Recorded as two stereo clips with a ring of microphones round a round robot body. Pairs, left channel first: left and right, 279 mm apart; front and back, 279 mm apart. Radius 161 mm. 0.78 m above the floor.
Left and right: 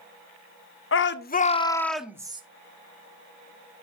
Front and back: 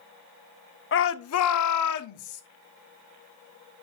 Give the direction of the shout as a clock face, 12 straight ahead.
10 o'clock.